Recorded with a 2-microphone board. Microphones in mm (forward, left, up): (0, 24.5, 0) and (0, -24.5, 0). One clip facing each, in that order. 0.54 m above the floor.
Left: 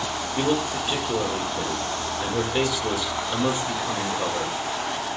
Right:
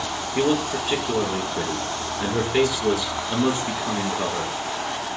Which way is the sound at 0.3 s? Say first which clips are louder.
Right 3 dB; 70° right (ahead or behind).